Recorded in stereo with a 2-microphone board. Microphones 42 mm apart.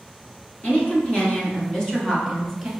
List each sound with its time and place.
0.6 s a woman speaking: 40° left (ahead or behind), 1.4 m; by 2.7 s centre (ahead or behind), 1.2 m